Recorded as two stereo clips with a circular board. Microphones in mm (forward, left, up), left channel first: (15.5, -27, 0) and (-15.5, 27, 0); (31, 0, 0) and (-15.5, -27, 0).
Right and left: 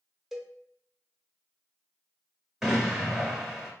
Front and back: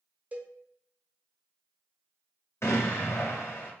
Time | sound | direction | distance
0.3 | a cowbell | 160° right | 0.8 m
2.6 | an explosion | 35° left | 1.4 m